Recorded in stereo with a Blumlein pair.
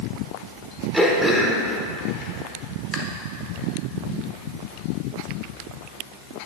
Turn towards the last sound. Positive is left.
turn(degrees=-5)